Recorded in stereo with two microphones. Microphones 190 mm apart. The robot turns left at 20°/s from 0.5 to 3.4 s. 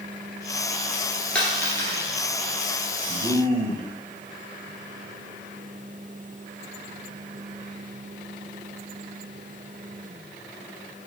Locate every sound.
1.4 s a dropped coin: 5° left (ahead or behind), 2 m; by 2.0 s 20° left (ahead or behind), 2 m
3.1 s a man speaking: 25° right (ahead or behind), 1.0 m; by 3.9 s 30° right (ahead or behind), 1.0 m